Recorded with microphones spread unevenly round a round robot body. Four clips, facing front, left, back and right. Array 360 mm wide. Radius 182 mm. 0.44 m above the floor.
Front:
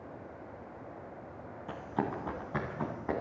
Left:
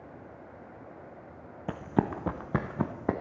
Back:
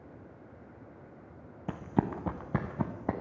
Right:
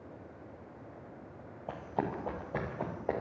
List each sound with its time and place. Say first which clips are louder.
1.7 s running footsteps: left 6 dB, back 3 dB; 130° left, 0.8 m; by 3.1 s 120° left, 1.7 m